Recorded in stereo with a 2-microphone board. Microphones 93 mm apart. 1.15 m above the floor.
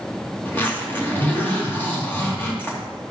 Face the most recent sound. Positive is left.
turn(degrees=20)  # may be behind; listen again after turning